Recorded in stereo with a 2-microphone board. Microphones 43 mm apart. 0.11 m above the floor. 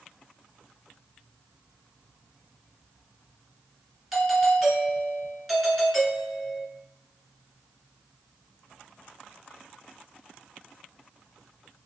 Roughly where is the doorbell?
Centre.